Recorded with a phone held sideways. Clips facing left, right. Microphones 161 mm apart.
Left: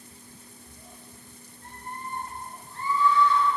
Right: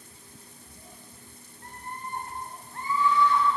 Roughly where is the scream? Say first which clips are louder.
Even; right.